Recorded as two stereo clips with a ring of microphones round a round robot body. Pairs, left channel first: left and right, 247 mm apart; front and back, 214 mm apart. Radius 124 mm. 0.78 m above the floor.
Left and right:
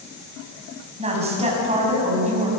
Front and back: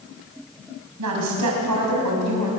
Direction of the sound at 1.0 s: 155° right.